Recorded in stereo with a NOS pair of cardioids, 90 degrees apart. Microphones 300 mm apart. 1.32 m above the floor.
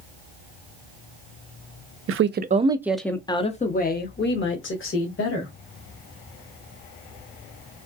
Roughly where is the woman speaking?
Ahead right.